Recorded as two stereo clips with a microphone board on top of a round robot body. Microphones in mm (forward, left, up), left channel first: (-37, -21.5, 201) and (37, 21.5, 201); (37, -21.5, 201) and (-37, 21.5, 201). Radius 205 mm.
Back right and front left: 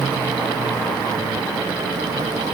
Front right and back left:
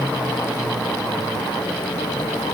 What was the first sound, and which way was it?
Only background noise.